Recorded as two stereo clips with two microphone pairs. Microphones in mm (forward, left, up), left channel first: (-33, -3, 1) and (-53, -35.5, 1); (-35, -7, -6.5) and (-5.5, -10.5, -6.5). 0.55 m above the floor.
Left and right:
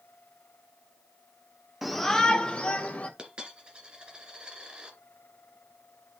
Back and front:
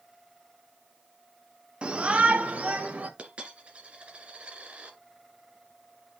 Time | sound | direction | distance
1.8 | a shout | 40° right | 1.2 m
3.2 | a dropped coin | 55° right | 2 m